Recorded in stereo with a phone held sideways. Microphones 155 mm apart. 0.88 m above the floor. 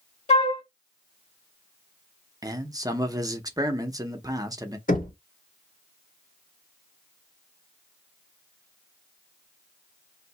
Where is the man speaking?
25° right (ahead or behind), 0.6 m.